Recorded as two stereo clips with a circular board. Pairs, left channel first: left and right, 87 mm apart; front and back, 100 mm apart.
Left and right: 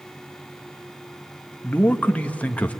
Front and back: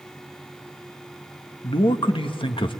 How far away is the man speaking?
About 1.3 m.